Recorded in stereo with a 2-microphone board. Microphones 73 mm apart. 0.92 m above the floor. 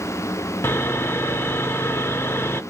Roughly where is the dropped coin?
No dropped coin in this recording.